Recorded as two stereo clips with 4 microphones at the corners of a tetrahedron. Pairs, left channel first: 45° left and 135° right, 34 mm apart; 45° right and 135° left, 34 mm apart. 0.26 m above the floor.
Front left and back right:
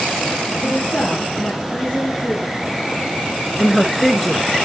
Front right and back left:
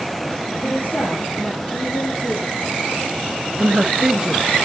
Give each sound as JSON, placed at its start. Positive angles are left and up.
{"t": 0.6, "sound": "a woman speaking", "azimuth_deg": -5, "distance_m": 6.5}
{"t": 3.6, "sound": "a woman speaking", "azimuth_deg": 130, "distance_m": 1.3}